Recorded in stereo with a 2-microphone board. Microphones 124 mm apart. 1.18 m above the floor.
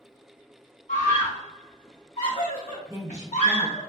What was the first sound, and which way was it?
A scream, 80° left.